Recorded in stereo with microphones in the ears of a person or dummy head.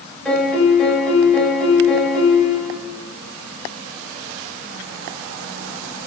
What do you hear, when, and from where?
0.2 s a piano: 5° left (ahead or behind), 2 m